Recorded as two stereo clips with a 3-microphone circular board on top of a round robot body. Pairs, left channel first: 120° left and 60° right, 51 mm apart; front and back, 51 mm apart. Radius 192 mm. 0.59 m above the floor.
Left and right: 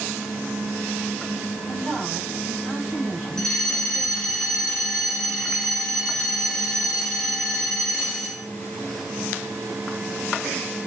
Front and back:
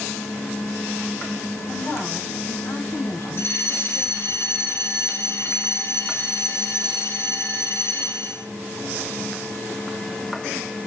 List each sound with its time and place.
1.7 s a woman speaking: 40° left, 6.5 m; by 4.4 s 25° left, 7 m
3.4 s a fire alarm: 40° left, 6.5 m